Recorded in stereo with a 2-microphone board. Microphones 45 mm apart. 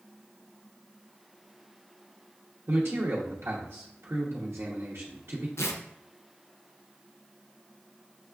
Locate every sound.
2.7 s a man speaking: 70° right (ahead or behind), 0.7 m
5.6 s tearing paper: 80° left, 0.5 m